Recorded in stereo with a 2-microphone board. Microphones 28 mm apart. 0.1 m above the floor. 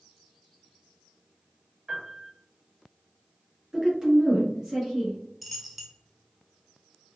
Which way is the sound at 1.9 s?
15° right (ahead or behind).